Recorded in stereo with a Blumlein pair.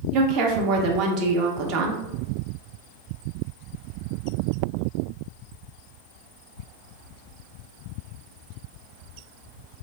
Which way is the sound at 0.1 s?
40° right.